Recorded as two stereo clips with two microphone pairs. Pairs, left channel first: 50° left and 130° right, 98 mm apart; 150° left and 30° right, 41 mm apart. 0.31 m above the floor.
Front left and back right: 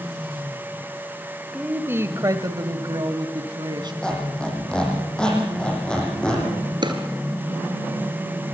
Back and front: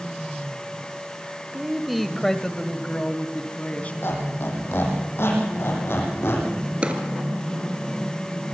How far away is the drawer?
About 3.5 m.